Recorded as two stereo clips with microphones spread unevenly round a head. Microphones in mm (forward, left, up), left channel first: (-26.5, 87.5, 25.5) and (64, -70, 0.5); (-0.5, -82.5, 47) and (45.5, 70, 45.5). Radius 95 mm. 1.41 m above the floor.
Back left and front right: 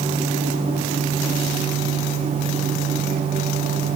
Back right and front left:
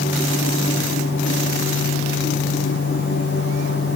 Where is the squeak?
I don't hear a squeak.